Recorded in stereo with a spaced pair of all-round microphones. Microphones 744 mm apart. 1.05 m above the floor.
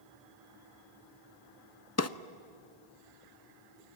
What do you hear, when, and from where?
2.0 s a drawer: 25° left (ahead or behind), 0.5 m